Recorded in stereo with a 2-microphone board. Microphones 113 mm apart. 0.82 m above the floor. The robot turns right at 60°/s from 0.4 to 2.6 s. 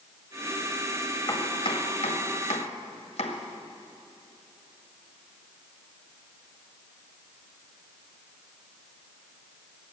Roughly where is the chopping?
Left.